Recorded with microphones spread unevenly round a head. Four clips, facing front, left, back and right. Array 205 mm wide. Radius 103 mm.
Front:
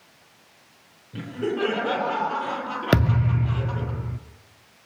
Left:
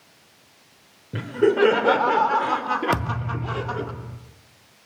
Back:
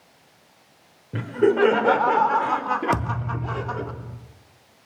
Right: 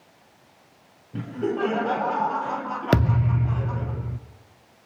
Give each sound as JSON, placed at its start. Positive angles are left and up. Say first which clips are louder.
{"t": 1.1, "sound": "laughter", "louder": "left 8 dB, back 8 dB", "azimuth_deg": 125, "distance_m": 4.0}
{"t": 2.9, "sound": "a thud", "louder": "right 4 dB, front 4 dB", "azimuth_deg": -5, "distance_m": 0.6}